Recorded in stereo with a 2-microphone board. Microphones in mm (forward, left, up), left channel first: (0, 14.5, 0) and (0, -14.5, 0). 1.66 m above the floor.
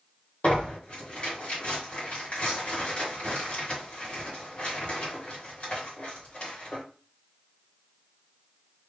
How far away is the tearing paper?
About 1.9 m.